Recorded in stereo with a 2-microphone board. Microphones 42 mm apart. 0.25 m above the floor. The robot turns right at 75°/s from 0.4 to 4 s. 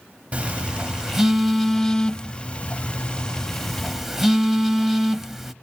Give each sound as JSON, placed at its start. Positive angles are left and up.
{"t": 0.3, "sound": "a phone buzzing", "side_deg": -30, "distance_m": 0.7}